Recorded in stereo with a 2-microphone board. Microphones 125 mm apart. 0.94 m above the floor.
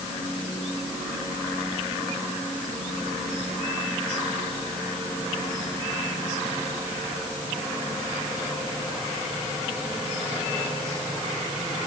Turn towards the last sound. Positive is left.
No sound to turn to.